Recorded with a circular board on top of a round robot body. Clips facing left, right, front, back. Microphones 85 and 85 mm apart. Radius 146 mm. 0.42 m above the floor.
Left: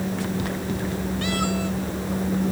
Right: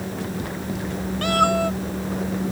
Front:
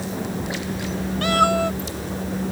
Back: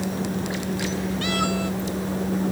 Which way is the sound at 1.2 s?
50° right.